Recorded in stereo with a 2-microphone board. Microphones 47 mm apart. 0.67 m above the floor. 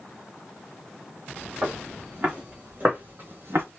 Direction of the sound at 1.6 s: 25° right (ahead or behind).